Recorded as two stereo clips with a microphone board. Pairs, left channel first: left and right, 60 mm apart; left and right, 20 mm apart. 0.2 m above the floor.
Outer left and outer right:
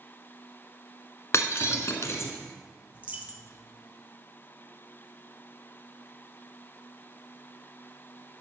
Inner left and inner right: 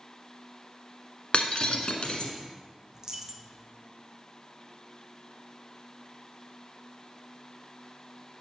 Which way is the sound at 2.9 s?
25° right (ahead or behind).